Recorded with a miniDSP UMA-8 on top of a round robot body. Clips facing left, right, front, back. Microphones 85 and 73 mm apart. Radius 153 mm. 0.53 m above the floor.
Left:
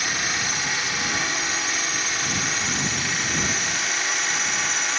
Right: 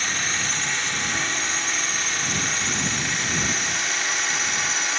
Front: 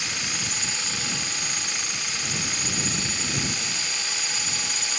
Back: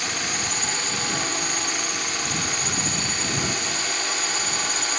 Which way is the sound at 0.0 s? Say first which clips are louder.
Left 1 dB, back 4 dB; 170° left.